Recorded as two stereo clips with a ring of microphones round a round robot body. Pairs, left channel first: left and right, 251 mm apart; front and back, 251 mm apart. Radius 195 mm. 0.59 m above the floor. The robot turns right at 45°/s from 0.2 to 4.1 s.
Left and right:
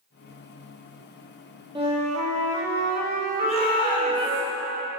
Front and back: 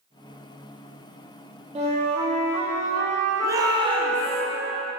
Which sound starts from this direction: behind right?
A flute, at 1.8 s.